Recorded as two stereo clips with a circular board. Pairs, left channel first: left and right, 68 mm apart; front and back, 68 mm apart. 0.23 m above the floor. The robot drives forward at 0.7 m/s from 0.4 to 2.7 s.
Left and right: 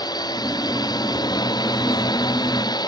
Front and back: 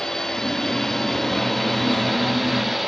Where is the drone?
80° left; by 2.9 s 90° left.